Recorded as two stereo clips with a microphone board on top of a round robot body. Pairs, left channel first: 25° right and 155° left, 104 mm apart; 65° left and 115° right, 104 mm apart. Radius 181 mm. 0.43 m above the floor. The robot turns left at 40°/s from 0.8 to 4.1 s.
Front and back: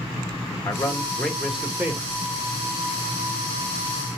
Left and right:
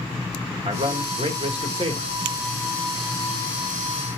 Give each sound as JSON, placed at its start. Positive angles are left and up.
{"t": 0.7, "sound": "a man speaking", "azimuth_deg": -90, "distance_m": 1.8}